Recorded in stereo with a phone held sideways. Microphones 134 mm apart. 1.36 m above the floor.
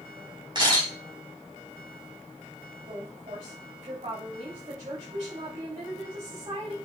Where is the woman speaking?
60° right (ahead or behind), 4 m.